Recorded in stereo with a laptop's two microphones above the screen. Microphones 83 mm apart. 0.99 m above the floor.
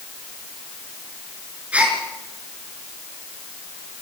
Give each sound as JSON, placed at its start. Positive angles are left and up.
{"t": 1.7, "sound": "a gasp", "side_deg": -15, "distance_m": 4.0}